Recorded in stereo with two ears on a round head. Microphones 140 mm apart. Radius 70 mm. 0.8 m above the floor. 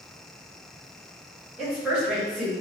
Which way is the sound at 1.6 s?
5° right (ahead or behind).